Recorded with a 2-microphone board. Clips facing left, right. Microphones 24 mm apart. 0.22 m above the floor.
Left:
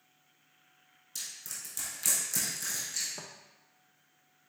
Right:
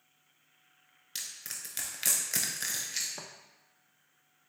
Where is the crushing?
50° right (ahead or behind), 0.9 m.